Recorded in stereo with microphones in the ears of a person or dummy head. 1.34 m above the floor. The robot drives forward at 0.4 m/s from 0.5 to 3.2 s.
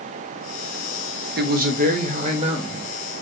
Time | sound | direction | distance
1.4 | a man speaking | 50° right (ahead or behind) | 0.9 m